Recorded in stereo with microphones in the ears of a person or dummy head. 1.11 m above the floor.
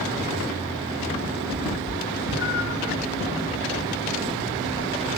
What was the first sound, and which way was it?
A cat meowing, 60° left (ahead or behind).